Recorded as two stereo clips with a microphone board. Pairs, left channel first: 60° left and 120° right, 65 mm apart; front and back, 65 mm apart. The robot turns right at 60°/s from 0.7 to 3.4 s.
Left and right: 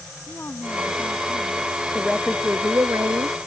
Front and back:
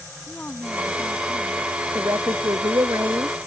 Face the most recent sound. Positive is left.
turn(degrees=-130)